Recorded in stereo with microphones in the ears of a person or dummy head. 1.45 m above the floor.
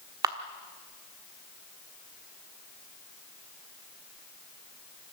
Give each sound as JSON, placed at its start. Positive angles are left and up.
{"t": 0.2, "sound": "a camera shutter", "side_deg": -25, "distance_m": 1.3}